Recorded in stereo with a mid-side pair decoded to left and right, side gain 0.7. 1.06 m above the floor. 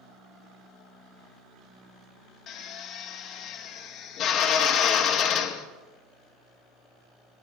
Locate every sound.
2.5 s a drill: 50° left, 1.2 m